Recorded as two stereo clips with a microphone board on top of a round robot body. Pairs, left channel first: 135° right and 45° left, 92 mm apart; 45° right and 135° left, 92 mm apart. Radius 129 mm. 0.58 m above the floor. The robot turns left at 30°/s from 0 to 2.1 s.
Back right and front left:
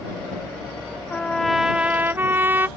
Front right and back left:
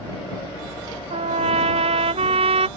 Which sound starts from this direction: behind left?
A trumpet, at 1.1 s.